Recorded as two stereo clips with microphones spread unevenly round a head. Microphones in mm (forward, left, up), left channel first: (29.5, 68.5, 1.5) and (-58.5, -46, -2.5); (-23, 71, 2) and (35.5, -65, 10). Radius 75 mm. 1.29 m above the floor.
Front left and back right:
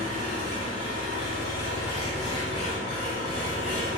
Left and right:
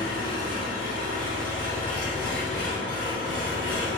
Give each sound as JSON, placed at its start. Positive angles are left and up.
{"t": 0.0, "sound": "an engine running", "azimuth_deg": 35, "distance_m": 1.4}